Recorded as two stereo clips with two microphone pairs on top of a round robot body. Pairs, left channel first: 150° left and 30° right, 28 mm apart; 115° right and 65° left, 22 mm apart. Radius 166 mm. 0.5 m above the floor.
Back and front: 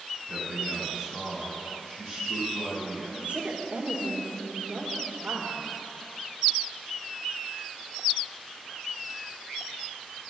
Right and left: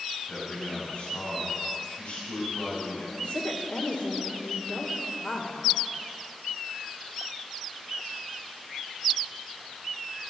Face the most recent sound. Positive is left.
turn(degrees=-85)